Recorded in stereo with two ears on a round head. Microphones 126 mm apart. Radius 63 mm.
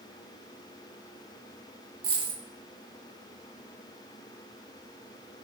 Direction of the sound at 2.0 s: 40° right (ahead or behind).